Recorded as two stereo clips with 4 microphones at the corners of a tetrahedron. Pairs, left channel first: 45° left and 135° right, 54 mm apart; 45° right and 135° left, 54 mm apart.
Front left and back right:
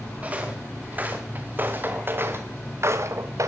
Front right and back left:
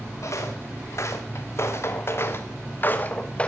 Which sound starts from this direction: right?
Footsteps, at 0.2 s.